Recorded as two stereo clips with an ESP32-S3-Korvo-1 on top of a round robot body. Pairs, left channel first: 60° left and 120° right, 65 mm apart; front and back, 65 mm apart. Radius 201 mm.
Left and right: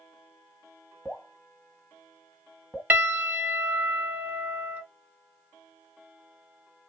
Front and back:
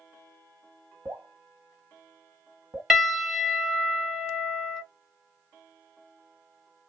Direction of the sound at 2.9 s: 100° right.